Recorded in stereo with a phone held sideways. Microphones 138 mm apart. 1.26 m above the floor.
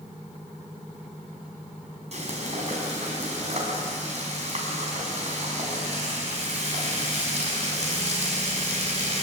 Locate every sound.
2.1 s frying: 55° right (ahead or behind), 6 m